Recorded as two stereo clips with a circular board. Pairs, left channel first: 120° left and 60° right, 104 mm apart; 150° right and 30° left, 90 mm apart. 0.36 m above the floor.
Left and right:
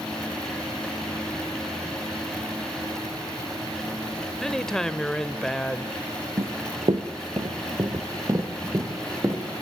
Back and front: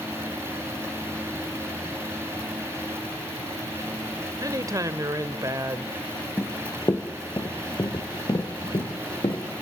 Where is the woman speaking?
40° left, 1.0 m.